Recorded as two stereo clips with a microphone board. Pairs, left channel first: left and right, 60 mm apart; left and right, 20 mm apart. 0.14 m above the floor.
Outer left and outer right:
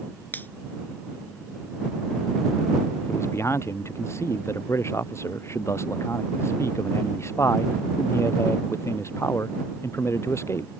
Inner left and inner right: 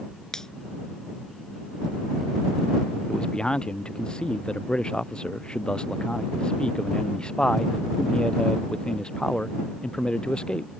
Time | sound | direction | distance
0.3 | a finger snap | 30° left (ahead or behind) | ?
3.1 | a man speaking | 50° left (ahead or behind) | ?